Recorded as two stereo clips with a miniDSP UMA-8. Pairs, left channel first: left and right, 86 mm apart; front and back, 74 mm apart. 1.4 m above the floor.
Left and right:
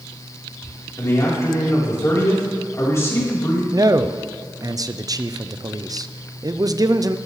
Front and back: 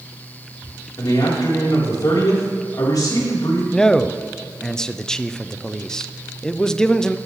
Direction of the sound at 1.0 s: 30° left.